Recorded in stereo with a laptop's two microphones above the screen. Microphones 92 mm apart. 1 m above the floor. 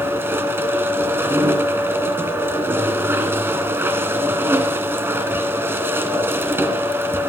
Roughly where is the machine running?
Right.